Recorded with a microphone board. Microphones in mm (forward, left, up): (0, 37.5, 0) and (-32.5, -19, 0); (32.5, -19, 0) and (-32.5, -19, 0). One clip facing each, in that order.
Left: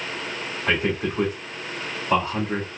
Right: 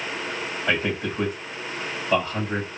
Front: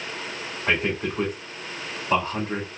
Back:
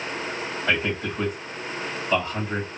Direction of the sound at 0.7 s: 45° left.